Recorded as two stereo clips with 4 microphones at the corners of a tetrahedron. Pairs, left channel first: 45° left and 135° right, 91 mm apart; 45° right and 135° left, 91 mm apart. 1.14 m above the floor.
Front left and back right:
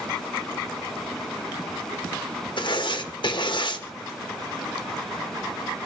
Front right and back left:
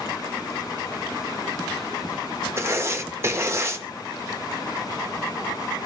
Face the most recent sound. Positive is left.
turn(degrees=75)